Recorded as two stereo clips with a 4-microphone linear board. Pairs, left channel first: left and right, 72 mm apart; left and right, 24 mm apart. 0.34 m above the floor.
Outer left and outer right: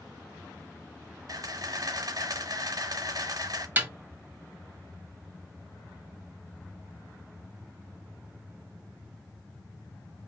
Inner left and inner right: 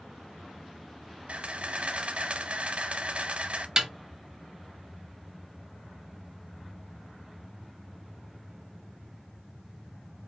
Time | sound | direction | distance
1.3 | a camera shutter | 60° right (ahead or behind) | 0.7 m
3.8 | a snare drum | 25° right (ahead or behind) | 1.0 m